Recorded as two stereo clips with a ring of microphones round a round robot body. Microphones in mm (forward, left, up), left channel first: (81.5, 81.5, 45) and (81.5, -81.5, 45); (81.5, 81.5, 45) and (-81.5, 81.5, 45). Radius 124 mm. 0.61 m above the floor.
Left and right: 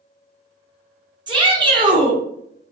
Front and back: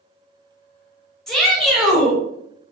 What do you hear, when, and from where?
1.3 s a shout: 85° right, 1.2 m